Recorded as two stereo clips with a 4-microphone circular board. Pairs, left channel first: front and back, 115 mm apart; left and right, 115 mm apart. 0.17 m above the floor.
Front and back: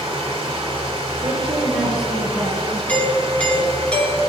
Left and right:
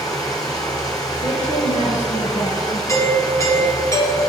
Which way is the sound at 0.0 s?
145° left.